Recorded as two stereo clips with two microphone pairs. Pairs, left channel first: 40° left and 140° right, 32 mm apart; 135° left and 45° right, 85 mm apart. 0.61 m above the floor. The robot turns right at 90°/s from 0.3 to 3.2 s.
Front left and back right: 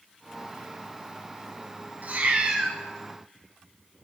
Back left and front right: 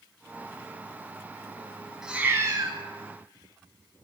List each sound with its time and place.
2.0 s a cat meowing: 125° right, 0.9 m; by 2.8 s 60° right, 0.9 m